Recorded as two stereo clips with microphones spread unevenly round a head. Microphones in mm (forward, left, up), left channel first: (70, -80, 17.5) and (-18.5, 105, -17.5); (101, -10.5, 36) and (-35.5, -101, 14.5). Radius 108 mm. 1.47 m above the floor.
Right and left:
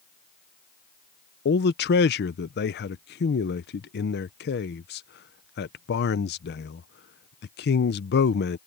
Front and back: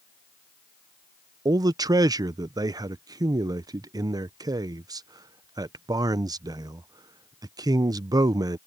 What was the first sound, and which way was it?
A man speaking, 80° right.